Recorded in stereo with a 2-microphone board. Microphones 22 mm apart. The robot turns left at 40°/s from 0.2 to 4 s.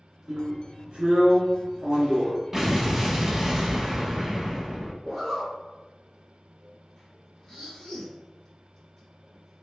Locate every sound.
0.3 s a drill: 40° right, 1.1 m; by 2.4 s 120° right, 1.1 m
2.5 s an explosion: 15° right (ahead or behind), 0.6 m; by 4.9 s 20° right (ahead or behind), 0.6 m
5.0 s a zipper: 25° left (ahead or behind), 1.7 m